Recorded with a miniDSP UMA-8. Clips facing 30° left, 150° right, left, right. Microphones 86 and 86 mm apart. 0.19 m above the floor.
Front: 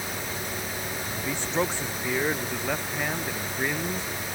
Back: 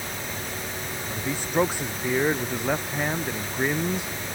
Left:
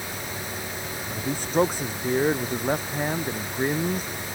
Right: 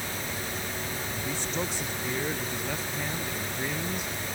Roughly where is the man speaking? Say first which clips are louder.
Back 4 dB, left 11 dB; behind left.